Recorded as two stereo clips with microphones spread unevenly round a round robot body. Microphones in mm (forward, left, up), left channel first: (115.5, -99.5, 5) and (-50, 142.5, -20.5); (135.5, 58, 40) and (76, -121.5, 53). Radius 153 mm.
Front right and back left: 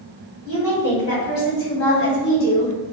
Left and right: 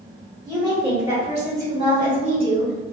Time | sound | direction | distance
0.5 | a woman speaking | 20° right | 1.8 m